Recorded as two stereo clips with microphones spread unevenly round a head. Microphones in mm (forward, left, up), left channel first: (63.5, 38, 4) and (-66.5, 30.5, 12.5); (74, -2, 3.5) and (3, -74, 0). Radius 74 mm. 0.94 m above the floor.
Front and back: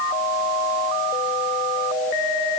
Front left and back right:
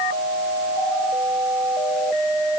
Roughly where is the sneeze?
I don't hear a sneeze.